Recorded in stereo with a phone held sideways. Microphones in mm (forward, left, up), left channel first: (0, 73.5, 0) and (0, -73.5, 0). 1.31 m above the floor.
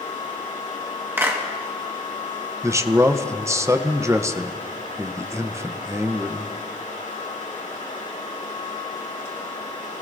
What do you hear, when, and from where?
0.0 s a fan: 55° left (ahead or behind), 2.5 m
1.2 s a clap: 15° right (ahead or behind), 1.6 m
2.6 s a man speaking: 20° right (ahead or behind), 0.6 m